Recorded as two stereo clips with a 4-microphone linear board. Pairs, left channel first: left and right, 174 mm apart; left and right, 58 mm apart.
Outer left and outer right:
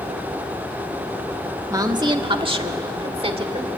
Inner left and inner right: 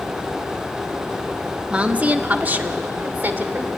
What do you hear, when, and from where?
1.7 s a woman speaking: 20° right (ahead or behind), 1.2 m; by 3.7 s 35° right (ahead or behind), 2.5 m